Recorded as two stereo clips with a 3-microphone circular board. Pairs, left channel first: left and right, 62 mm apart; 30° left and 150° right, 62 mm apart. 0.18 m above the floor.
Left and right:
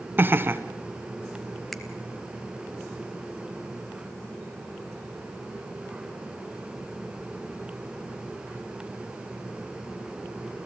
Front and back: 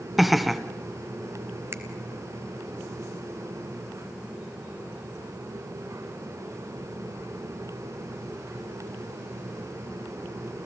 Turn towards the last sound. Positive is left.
turn(degrees=175)